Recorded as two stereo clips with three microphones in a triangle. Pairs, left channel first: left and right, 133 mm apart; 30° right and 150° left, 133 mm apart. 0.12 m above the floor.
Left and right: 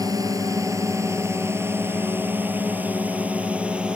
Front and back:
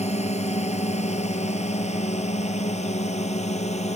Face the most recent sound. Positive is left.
turn(degrees=-10)